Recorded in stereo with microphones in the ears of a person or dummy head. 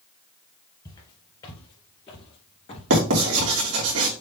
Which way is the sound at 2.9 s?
80° right.